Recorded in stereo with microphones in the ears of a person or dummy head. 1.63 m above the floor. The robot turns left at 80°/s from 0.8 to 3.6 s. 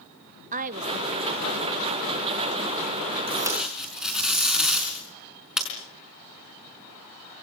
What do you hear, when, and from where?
0.5 s a woman speaking: 40° right (ahead or behind), 1.2 m; by 2.5 s 5° right (ahead or behind), 1.2 m
3.3 s tape being pulled: 25° right (ahead or behind), 5 m; by 5.7 s centre (ahead or behind), 5 m